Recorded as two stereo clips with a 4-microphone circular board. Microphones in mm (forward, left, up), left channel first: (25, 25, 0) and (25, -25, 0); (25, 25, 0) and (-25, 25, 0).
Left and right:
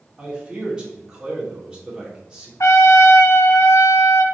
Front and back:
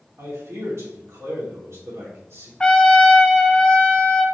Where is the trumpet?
70° left, 1.0 m.